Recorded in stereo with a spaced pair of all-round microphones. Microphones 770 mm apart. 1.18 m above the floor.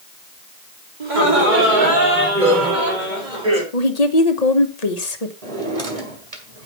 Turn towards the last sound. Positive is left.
turn(degrees=-50)  # may be behind; listen again after turning